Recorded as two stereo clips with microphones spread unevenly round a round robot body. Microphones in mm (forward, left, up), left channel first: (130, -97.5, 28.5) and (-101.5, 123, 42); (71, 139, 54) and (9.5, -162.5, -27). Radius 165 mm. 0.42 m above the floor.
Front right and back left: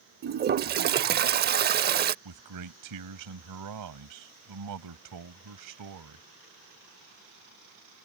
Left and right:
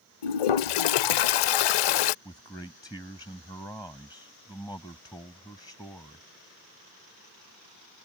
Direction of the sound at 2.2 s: 160° left.